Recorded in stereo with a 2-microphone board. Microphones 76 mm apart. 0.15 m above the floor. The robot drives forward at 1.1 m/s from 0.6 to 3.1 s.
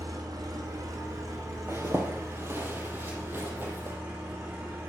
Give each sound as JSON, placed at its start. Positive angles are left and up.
{"t": 0.0, "sound": "an engine running", "side_deg": -60, "distance_m": 3.5}
{"t": 1.7, "sound": "a zipper", "side_deg": -45, "distance_m": 3.5}